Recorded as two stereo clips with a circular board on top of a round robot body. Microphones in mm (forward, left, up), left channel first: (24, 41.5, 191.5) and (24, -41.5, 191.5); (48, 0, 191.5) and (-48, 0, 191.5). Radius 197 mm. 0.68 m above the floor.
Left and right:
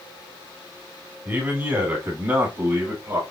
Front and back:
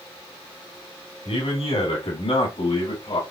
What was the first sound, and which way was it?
A man speaking, 20° right.